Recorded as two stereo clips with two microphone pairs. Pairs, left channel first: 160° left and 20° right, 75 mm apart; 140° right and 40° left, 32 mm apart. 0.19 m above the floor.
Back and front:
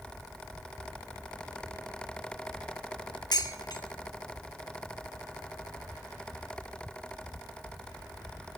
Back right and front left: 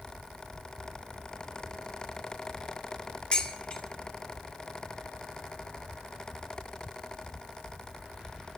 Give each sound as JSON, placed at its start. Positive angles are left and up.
{"t": 3.3, "sound": "dishes clattering", "azimuth_deg": 165, "distance_m": 2.0}